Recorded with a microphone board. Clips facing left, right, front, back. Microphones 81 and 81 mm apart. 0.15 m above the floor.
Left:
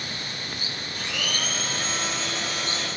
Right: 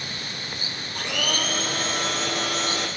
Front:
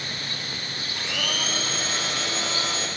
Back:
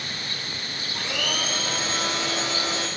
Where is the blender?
115° right, 4 m.